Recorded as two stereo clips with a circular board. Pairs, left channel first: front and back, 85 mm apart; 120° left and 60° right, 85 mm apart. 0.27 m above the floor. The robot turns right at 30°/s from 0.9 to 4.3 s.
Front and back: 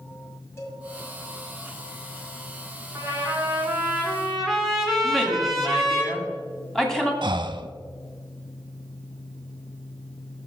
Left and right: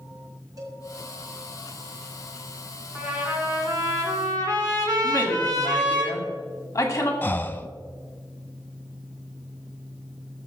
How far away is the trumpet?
About 2 m.